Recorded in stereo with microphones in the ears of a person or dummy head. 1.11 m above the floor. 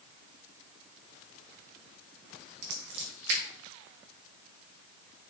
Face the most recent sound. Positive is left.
turn(degrees=-75)  # may be behind; listen again after turning